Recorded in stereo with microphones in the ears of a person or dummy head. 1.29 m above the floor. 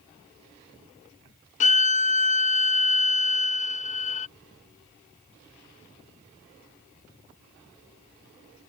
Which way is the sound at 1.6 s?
40° left (ahead or behind).